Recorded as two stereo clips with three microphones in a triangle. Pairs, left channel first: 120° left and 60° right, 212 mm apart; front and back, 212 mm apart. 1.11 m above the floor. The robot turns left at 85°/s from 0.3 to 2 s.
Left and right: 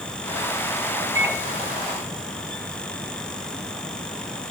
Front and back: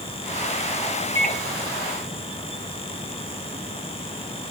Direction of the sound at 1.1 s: 80° right.